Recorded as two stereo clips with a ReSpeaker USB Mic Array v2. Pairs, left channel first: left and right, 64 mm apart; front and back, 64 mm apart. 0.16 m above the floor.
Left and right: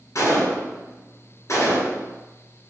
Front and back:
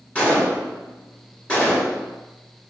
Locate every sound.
0.1 s a gunshot: 65° left, 1.8 m